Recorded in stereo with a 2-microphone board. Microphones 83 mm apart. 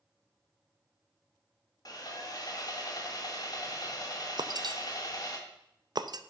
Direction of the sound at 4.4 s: 55° right (ahead or behind).